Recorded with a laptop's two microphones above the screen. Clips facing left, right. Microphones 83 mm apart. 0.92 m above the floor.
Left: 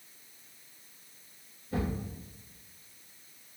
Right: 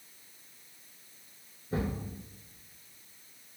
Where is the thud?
30° right (ahead or behind), 1.9 m.